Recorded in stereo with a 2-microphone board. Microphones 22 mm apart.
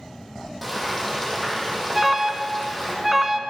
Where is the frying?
5° left (ahead or behind), 4 m.